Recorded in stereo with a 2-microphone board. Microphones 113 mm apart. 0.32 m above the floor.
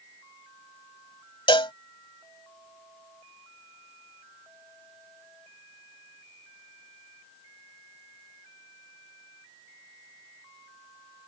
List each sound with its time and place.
1.5 s a cowbell: 50° left (ahead or behind)